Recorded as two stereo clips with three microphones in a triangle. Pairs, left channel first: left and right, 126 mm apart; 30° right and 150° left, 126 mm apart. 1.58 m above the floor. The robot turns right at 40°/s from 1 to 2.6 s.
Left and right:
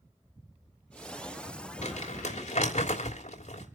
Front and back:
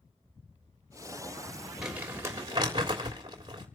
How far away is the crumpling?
About 3 m.